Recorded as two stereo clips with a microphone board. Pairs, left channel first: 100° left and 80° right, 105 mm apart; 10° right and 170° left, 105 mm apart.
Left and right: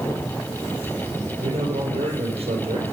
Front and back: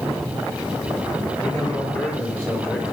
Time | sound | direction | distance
1.4 | a man speaking | 80° right | 5 m